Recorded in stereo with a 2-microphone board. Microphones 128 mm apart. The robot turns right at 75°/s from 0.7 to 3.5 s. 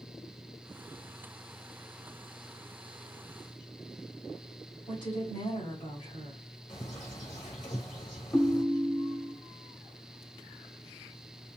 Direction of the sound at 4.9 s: 90° left.